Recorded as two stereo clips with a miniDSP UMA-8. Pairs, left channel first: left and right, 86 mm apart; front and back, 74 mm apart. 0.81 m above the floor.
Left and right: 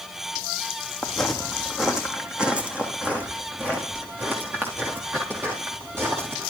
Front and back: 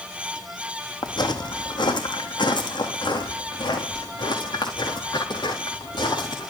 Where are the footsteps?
10° left, 1.7 m; by 6.5 s 25° right, 6 m.